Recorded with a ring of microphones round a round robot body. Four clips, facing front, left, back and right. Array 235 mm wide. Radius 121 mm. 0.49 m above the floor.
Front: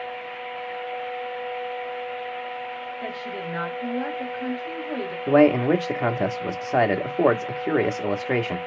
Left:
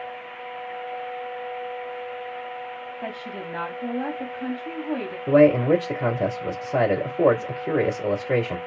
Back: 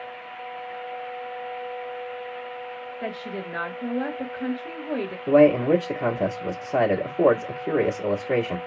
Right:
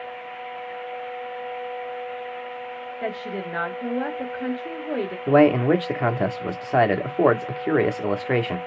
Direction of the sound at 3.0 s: 105° right.